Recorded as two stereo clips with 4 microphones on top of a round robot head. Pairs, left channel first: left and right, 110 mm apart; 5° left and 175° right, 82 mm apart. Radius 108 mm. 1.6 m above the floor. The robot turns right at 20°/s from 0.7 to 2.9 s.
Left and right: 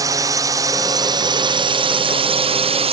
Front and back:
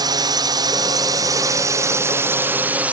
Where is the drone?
145° right; by 2.9 s 100° right.